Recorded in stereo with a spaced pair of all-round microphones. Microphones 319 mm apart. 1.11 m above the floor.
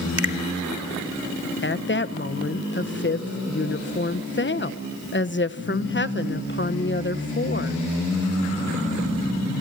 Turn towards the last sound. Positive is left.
turn(degrees=35)  # may be behind; listen again after turning